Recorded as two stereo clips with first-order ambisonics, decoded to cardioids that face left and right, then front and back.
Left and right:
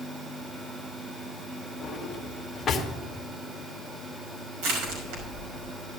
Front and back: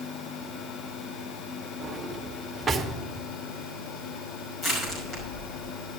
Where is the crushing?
75° right, 5.5 m.